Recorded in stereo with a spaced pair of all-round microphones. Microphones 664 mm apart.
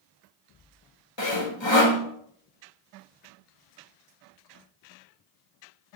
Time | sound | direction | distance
1.2 | sawing | 40° left (ahead or behind) | 1.2 m